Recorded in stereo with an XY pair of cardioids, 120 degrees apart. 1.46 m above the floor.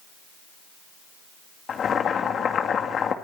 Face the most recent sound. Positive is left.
turn(degrees=45)